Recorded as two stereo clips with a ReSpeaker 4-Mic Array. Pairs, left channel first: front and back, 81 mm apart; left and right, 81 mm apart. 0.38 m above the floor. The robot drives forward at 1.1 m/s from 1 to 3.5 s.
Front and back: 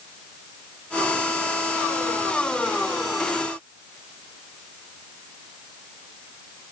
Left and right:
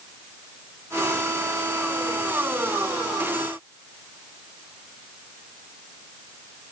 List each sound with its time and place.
Only background noise.